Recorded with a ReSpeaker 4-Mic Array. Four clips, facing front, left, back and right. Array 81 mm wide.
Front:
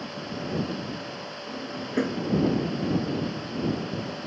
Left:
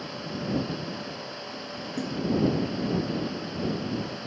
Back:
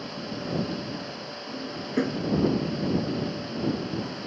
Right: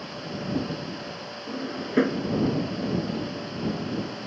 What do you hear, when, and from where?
1.5 s a drawer: 85° right